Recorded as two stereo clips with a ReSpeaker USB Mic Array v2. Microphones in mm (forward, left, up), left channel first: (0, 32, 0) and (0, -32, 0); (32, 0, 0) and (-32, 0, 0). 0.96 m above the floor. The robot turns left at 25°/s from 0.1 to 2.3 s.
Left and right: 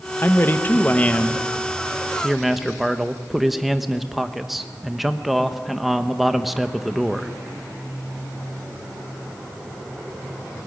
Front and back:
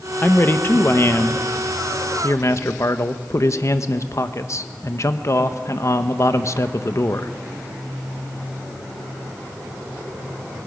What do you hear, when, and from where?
0.2 s a man speaking: 50° left, 1.0 m; by 7.3 s 5° right, 1.0 m